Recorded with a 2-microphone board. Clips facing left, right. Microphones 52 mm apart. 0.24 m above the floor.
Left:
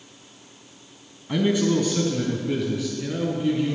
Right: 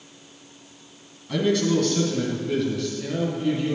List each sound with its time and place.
1.3 s a man speaking: 20° left (ahead or behind), 1.8 m; by 3.8 s 5° left (ahead or behind), 3 m